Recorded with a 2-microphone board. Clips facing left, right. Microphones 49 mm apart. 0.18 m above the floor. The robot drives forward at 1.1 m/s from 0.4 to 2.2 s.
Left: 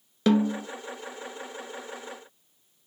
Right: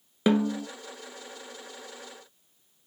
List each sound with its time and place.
0.3 s a snare drum: 15° right (ahead or behind), 1.0 m; by 0.7 s 20° right (ahead or behind), 0.7 m